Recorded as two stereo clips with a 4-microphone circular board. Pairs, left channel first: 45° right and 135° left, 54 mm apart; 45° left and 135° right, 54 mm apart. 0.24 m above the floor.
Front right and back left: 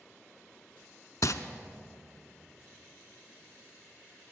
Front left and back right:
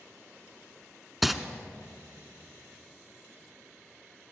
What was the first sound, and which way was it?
Crumpling, 50° right.